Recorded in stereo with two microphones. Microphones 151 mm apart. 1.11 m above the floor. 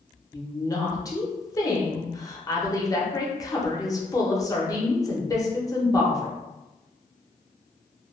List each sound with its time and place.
0.3 s a woman speaking: 25° left (ahead or behind), 0.6 m